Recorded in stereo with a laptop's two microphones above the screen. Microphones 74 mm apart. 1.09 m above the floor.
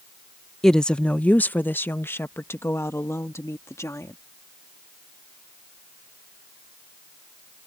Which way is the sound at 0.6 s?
5° left (ahead or behind).